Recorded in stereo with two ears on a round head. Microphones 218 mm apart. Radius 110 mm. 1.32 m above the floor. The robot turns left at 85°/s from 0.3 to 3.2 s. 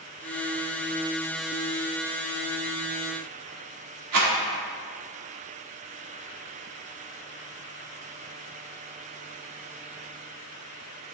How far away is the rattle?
About 2 m.